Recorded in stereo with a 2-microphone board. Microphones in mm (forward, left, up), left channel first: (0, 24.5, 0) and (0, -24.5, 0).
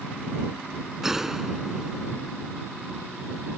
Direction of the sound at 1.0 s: 10° right (ahead or behind).